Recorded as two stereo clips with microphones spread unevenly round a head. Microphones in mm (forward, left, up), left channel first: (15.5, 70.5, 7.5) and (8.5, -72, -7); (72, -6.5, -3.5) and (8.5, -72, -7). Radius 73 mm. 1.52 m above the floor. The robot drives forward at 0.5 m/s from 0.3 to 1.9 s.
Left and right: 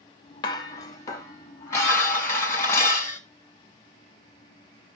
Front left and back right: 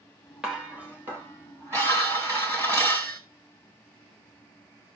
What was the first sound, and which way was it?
Dishes clattering, 140° left.